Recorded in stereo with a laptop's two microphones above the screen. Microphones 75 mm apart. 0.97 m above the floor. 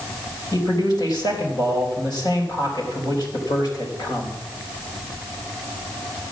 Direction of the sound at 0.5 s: 65° left (ahead or behind).